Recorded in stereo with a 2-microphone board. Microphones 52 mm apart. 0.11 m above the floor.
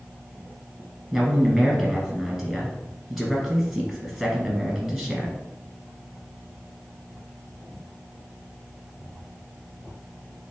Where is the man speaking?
Centre (ahead or behind), 1.7 m.